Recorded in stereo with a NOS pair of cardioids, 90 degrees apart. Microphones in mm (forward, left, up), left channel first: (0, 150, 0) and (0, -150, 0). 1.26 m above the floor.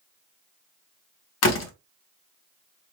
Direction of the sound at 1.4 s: 60° left.